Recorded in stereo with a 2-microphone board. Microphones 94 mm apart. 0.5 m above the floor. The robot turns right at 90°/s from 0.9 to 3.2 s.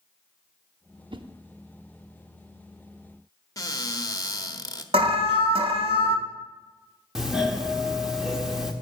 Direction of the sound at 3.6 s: 40° left (ahead or behind).